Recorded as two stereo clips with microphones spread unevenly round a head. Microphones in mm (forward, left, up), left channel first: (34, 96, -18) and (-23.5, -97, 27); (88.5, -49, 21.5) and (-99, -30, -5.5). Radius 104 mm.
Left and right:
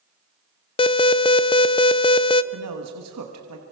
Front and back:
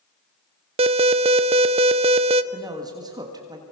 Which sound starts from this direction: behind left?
An alarm, at 0.8 s.